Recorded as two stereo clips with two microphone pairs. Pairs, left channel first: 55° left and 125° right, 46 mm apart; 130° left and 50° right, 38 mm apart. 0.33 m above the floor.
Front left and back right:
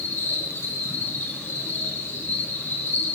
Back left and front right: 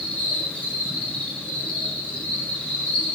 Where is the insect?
75° left, 4 m.